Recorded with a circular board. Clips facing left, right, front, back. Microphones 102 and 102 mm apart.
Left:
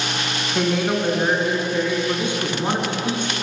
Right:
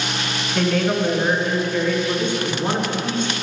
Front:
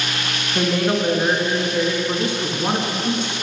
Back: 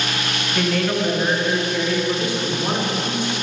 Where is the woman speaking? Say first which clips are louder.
Right 1 dB, front 2 dB; 30° left, 1.1 m.